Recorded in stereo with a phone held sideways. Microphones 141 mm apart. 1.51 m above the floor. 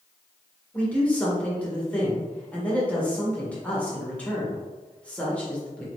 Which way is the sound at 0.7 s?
10° left (ahead or behind).